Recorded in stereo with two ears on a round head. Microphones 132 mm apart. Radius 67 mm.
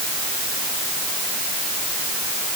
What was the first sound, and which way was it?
Only background noise.